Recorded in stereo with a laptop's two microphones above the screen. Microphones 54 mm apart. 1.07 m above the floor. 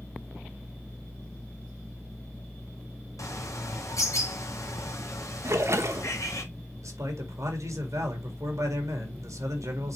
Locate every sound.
3.2 s a bird: 80° left, 1.4 m
5.4 s a splash: 60° right (ahead or behind), 1.0 m
6.8 s a man speaking: 75° right (ahead or behind), 2 m